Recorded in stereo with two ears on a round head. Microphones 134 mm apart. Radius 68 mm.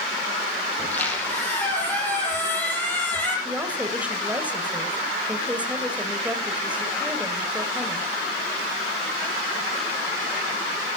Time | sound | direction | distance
0.8 | a squeak | 10° left (ahead or behind) | 6.5 m
3.5 | a woman speaking | 10° right (ahead or behind) | 2 m